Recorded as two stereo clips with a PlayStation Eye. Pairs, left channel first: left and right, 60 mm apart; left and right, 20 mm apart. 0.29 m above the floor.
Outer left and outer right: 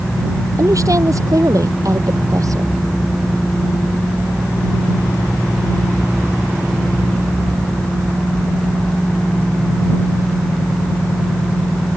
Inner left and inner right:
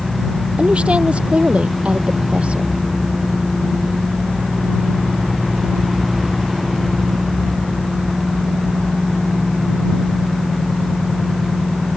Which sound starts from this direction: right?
A woman speaking, at 0.6 s.